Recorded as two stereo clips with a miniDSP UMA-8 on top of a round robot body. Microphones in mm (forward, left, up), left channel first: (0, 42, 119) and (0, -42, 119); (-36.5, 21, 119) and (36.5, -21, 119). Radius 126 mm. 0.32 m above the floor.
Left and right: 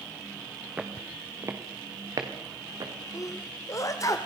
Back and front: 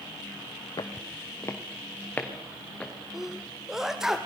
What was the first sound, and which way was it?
Footsteps, 165° right.